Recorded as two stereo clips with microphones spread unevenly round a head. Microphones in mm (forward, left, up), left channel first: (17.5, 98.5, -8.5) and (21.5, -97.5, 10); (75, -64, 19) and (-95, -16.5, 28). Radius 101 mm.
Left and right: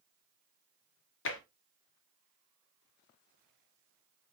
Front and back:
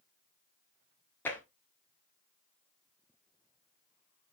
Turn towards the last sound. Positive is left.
turn(degrees=65)